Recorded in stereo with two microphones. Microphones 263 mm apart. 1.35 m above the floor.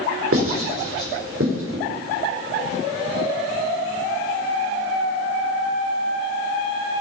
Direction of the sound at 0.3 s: 55° right (ahead or behind).